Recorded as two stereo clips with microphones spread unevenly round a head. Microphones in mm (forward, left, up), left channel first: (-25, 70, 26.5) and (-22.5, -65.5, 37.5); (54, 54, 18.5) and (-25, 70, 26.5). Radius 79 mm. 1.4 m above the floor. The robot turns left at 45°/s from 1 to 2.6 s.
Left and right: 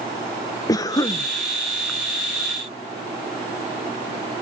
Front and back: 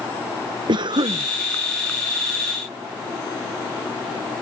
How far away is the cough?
About 0.8 m.